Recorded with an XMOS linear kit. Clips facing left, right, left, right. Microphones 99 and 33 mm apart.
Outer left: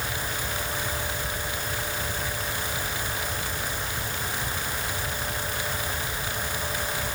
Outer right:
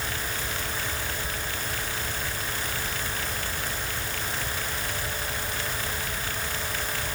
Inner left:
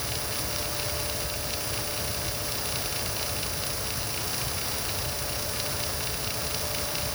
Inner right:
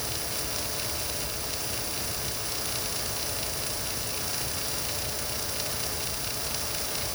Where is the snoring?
I don't hear snoring.